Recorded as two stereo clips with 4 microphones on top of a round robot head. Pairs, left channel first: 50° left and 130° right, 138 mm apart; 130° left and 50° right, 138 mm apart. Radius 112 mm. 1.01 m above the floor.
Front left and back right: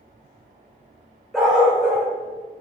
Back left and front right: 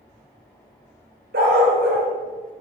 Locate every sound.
1.3 s a dog barking: 40° right, 1.6 m